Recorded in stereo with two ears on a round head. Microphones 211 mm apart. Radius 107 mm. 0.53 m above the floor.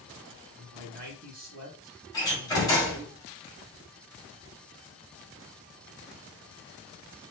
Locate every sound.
0.6 s a man speaking: 40° right (ahead or behind), 1.9 m
2.1 s a door slam: 15° left (ahead or behind), 2.5 m